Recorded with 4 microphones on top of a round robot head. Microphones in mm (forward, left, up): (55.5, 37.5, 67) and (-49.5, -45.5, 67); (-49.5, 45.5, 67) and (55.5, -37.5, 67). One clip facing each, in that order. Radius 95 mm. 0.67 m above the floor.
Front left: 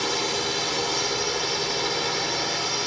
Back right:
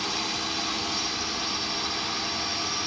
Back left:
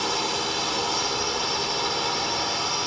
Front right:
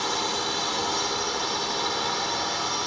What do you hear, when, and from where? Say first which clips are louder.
0.0 s a drone: front left 6 dB, back left 1 dB; 60° left